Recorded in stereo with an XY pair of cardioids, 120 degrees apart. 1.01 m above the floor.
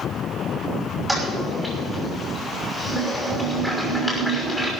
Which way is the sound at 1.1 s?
Straight ahead.